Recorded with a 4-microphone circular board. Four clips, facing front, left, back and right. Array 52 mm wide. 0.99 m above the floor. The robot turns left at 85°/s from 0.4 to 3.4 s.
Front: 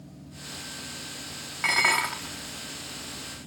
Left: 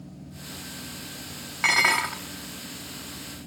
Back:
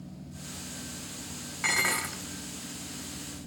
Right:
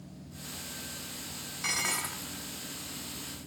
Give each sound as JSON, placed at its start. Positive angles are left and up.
{"t": 1.6, "sound": "dishes clattering", "azimuth_deg": 75, "distance_m": 1.0}